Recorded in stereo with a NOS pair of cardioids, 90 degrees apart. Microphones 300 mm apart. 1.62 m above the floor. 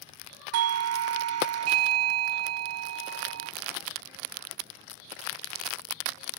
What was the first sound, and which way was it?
A doorbell, 60° right.